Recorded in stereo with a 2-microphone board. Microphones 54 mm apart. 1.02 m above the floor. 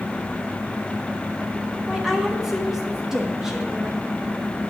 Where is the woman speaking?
10° right (ahead or behind), 1.2 m.